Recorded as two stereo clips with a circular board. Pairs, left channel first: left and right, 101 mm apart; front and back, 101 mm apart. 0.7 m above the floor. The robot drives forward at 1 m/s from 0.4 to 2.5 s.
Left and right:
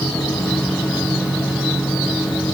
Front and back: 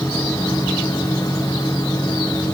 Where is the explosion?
I don't hear an explosion.